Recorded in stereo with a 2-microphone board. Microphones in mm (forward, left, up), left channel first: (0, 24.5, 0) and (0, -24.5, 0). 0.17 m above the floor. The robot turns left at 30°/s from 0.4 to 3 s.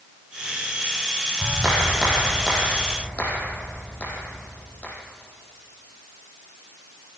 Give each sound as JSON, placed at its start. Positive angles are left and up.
{"t": 1.4, "sound": "a clap", "azimuth_deg": -160, "distance_m": 5.5}